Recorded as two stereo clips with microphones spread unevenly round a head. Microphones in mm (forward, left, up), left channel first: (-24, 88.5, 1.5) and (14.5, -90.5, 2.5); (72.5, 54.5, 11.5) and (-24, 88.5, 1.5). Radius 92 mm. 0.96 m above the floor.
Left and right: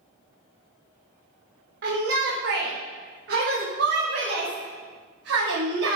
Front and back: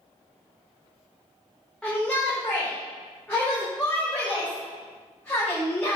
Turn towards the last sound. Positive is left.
turn(degrees=-100)